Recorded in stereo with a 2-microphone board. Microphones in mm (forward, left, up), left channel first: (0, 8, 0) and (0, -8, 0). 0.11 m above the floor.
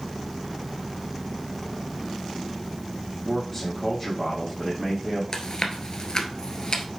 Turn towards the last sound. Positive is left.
turn(degrees=45)  # may be behind; listen again after turning